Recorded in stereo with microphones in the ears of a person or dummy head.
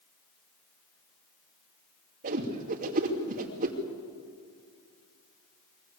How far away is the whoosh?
About 2.5 m.